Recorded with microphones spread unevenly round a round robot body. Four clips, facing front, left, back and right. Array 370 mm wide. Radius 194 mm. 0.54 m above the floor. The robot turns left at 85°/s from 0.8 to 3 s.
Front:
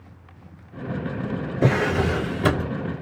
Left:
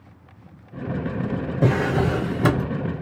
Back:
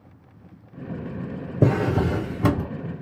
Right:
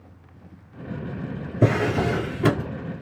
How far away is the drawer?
About 1.4 m.